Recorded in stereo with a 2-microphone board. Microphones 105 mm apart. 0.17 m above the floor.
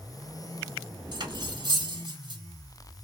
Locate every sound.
1.1 s cutlery clinking: 50° right (ahead or behind), 1.0 m